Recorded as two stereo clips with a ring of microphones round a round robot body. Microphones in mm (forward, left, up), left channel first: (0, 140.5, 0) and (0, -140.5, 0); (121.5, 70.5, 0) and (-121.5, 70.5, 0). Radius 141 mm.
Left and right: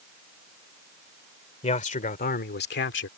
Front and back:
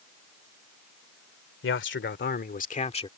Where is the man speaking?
25° left; by 3.1 s 60° left.